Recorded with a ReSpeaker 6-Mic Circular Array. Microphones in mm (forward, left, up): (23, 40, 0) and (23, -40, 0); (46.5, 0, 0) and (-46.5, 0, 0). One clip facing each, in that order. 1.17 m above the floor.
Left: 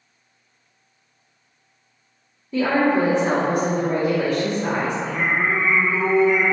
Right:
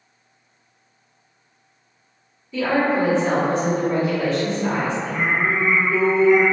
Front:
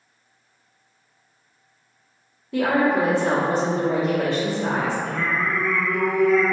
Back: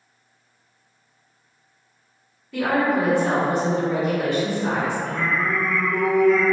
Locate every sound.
2.5 s a woman speaking: 55° left, 0.7 m
5.0 s singing: 150° left, 1.0 m